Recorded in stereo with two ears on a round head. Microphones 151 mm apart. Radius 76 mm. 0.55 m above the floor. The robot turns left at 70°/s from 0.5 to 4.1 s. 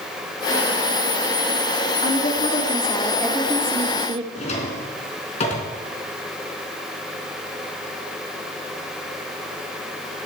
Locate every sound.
2.0 s a woman speaking: 95° left, 1.3 m; by 4.2 s 50° right, 1.3 m
4.3 s a drawer: 40° left (ahead or behind), 3.5 m